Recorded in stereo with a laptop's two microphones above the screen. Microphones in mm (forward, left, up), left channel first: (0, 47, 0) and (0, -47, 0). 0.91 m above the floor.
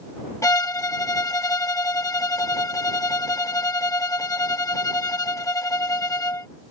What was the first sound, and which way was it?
A violin, 35° left (ahead or behind).